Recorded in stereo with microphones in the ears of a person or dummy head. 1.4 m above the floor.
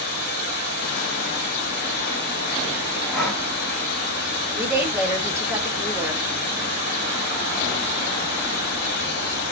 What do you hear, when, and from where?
0.0 s running water: 60° left (ahead or behind), 1.1 m
3.1 s breathing: 5° left (ahead or behind), 1.8 m
4.5 s a woman speaking: 15° right (ahead or behind), 0.9 m